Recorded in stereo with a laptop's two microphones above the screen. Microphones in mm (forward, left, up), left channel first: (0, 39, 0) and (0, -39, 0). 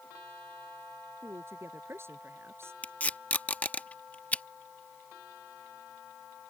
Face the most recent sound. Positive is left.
turn(degrees=20)  # may be behind; listen again after turning